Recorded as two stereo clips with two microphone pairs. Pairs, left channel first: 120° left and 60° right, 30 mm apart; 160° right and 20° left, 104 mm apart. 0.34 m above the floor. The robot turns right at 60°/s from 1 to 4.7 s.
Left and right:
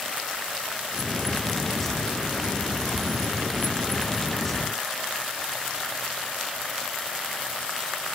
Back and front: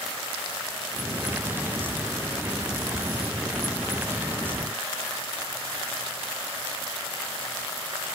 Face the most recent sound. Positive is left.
No sound to turn to.